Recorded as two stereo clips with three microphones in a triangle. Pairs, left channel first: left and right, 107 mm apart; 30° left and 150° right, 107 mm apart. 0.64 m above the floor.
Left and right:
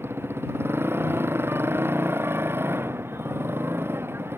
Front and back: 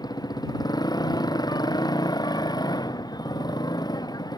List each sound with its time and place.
0.0 s a motorcycle: 20° right